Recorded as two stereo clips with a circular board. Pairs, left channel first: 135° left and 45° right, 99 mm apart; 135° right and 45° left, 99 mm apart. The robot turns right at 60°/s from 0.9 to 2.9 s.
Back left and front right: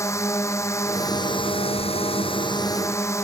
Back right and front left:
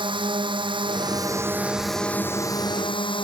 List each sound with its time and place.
0.0 s a drone: 75° left; by 3.2 s 165° right